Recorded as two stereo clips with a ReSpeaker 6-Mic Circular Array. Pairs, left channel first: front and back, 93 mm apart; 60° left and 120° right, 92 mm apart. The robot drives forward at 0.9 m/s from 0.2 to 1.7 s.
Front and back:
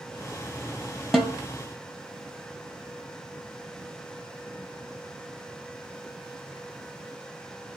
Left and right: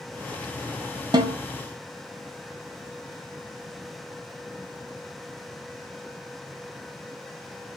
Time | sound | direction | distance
1.1 | a snare drum | 90° right | 0.9 m